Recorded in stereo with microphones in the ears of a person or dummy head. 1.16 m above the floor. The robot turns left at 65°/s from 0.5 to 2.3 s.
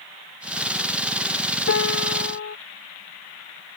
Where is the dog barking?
No dog barking in this recording.